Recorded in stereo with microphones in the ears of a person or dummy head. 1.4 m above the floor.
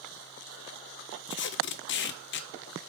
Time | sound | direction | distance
1.3 | tape being pulled | 55° left (ahead or behind) | 0.5 m